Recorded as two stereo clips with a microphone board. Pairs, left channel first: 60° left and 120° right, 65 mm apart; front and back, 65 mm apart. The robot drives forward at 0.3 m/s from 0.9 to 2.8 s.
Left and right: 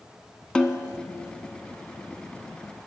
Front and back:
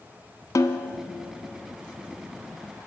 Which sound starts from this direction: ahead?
A snare drum, at 0.6 s.